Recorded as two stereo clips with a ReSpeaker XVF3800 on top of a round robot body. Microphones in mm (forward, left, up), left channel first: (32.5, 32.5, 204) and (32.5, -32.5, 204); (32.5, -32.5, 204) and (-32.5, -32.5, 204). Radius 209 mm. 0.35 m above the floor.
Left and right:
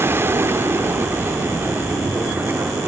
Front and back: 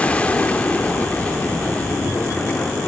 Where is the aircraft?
60° right; by 2.9 s 55° right.